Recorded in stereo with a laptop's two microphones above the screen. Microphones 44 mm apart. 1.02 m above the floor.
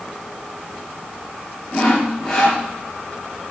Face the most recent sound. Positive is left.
turn(degrees=10)  # may be behind; listen again after turning